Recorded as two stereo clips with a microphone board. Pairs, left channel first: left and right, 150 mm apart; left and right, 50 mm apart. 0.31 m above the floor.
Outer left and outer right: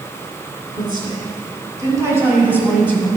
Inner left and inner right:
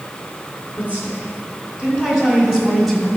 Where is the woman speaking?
30° right (ahead or behind), 3 m; by 3.1 s 5° right (ahead or behind), 2.5 m.